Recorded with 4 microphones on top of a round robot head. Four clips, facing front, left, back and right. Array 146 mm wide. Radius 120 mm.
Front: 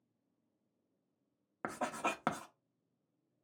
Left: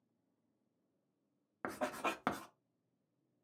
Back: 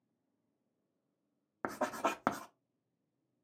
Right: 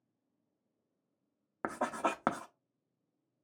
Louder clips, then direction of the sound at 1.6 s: Right 5 dB, back 3 dB; 120° right.